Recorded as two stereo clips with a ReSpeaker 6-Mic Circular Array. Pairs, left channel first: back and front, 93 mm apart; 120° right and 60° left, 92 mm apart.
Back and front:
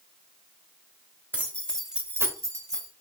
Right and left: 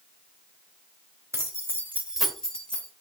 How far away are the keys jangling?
About 1.1 m.